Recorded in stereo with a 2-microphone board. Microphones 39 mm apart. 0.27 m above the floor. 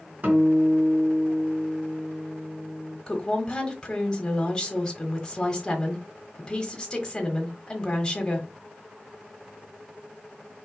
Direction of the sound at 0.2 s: 45° right (ahead or behind).